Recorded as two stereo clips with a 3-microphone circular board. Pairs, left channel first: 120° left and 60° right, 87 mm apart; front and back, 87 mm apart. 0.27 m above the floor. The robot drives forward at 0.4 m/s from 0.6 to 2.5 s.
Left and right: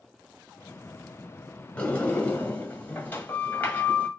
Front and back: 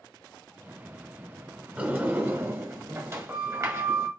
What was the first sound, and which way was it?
A sliding door, 160° left.